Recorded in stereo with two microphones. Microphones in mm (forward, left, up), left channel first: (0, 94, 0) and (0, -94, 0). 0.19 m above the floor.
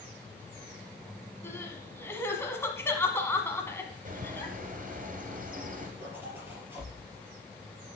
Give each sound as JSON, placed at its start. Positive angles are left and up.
{"t": 1.4, "sound": "crying", "side_deg": 15, "distance_m": 1.3}
{"t": 4.0, "sound": "a bird", "side_deg": -45, "distance_m": 1.9}
{"t": 6.0, "sound": "a zipper", "side_deg": -10, "distance_m": 3.5}